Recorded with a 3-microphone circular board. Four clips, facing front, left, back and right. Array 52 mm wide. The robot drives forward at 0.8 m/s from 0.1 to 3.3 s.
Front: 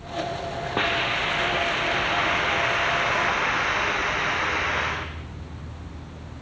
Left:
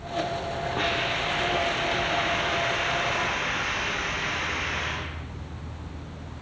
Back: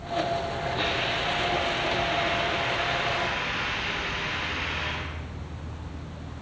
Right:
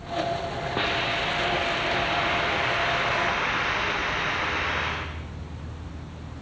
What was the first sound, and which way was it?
A hiss, 15° right.